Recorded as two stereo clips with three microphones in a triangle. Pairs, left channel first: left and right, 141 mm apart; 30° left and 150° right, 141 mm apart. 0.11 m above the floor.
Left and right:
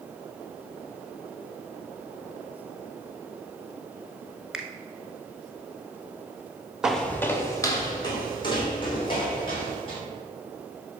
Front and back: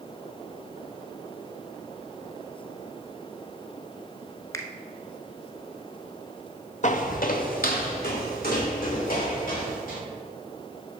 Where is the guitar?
I don't hear a guitar.